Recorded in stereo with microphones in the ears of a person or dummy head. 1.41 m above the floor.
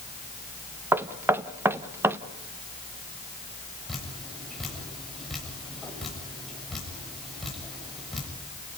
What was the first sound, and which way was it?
Knocking, 10° right (ahead or behind).